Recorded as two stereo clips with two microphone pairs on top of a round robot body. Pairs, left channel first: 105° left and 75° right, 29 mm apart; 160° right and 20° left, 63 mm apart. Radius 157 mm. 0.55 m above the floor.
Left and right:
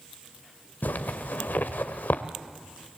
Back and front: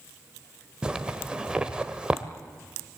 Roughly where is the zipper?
Left.